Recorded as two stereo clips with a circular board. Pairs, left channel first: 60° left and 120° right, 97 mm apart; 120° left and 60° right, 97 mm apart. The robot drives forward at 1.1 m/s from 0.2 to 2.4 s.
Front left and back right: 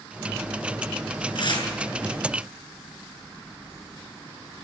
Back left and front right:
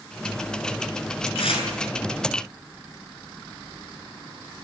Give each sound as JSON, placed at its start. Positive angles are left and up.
{"t": 1.4, "sound": "tearing paper", "azimuth_deg": 100, "distance_m": 6.5}